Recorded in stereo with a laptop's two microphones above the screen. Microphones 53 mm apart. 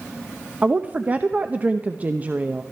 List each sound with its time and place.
0.6 s a woman speaking: 30° right (ahead or behind), 0.8 m